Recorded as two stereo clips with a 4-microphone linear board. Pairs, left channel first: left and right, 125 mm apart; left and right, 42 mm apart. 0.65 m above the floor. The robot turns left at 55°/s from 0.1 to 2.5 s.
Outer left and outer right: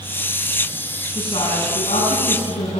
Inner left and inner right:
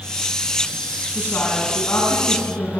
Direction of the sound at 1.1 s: 140° left.